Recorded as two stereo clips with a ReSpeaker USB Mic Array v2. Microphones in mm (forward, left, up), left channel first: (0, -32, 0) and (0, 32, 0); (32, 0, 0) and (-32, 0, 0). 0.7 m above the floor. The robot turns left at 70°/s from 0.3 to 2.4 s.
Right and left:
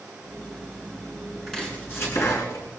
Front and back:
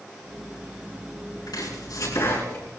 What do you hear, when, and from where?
1.5 s chopping: straight ahead, 7.5 m; by 2.6 s 65° right, 7.5 m